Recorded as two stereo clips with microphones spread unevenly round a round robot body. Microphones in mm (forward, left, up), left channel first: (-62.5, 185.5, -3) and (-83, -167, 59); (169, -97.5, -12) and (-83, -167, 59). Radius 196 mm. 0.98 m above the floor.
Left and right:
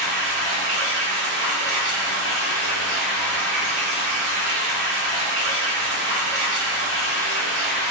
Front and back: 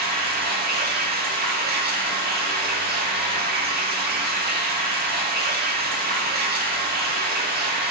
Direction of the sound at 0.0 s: 110° right.